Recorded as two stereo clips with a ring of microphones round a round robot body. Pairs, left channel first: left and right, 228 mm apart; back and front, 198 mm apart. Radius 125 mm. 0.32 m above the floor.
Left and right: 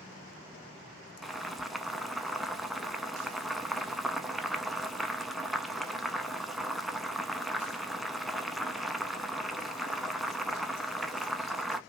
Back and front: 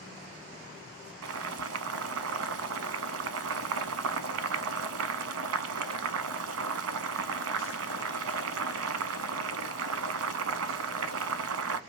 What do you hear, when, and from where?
1.2 s boiling: straight ahead, 0.6 m